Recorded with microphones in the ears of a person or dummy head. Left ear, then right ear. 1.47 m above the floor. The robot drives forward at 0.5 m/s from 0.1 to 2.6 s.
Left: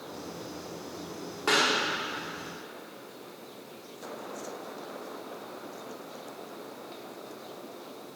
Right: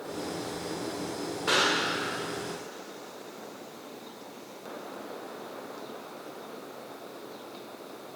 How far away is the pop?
About 1.4 m.